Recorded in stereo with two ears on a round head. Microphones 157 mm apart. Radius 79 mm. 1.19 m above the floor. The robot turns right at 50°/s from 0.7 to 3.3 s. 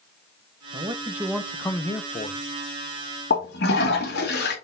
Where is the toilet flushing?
70° left (ahead or behind), 2 m.